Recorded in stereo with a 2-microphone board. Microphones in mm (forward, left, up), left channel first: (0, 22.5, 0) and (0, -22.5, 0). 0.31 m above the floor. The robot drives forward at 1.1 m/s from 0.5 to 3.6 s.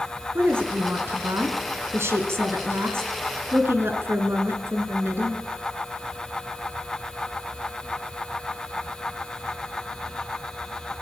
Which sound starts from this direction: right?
A woman speaking, at 0.3 s.